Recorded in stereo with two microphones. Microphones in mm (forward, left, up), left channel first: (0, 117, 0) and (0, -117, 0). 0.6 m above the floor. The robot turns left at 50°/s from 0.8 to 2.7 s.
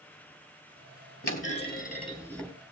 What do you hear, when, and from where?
1.2 s a clunk: 65° left, 4 m; by 2.5 s straight ahead, 4 m